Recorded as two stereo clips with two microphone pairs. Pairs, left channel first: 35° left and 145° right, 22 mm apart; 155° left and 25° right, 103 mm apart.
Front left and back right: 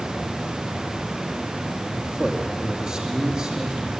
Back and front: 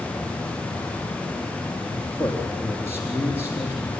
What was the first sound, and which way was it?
A man speaking, 100° right.